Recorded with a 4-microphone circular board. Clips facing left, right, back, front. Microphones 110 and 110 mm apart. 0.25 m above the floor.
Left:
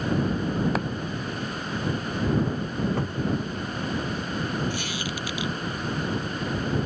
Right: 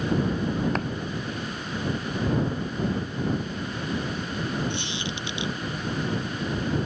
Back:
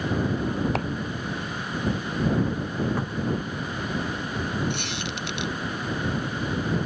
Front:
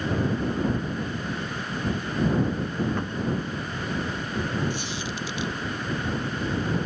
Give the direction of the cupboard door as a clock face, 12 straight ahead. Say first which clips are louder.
Left 1 dB, even; 9 o'clock.